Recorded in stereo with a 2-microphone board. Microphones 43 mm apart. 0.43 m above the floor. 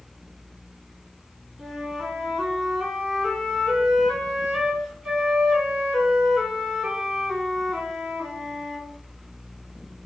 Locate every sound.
1.6 s a flute: centre (ahead or behind), 1.9 m